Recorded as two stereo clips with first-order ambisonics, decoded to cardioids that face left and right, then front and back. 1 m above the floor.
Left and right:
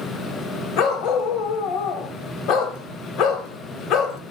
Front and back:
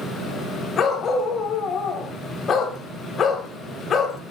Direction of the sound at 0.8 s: 55° left.